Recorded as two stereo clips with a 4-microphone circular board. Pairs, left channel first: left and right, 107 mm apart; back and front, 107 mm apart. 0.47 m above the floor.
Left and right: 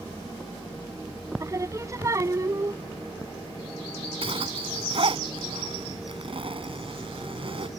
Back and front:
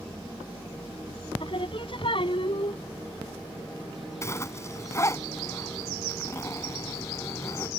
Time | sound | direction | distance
1.4 | singing | 150° right | ?
4.2 | a zipper | 120° right | ?